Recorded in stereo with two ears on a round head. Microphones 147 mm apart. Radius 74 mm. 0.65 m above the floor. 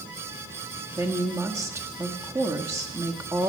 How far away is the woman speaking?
About 1.1 m.